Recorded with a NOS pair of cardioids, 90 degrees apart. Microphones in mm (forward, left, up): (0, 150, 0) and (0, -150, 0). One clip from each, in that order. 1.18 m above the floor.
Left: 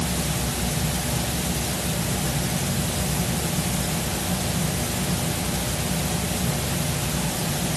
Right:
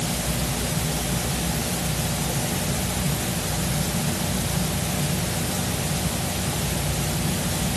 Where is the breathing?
No breathing in this recording.